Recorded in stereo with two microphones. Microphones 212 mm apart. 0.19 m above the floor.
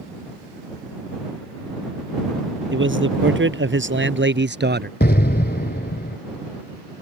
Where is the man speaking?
70° right (ahead or behind); by 4.9 s 55° right (ahead or behind).